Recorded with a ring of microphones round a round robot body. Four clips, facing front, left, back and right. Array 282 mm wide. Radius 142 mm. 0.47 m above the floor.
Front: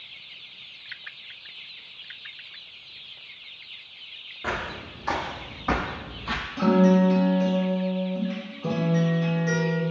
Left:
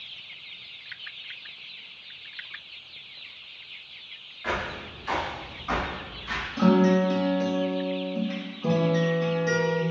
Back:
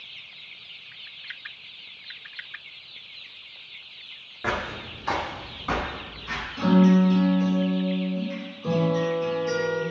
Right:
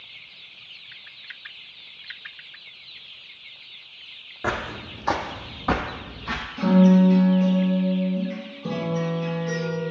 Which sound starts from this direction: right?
Footsteps, at 4.4 s.